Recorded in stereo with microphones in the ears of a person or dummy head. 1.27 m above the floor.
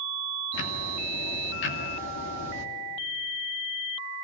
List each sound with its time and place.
0.5 s ticking: 65° left (ahead or behind), 2.5 m